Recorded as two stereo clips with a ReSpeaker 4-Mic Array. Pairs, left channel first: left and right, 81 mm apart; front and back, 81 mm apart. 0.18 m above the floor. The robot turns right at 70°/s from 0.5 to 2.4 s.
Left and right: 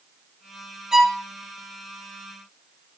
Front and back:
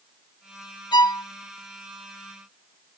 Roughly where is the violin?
Ahead.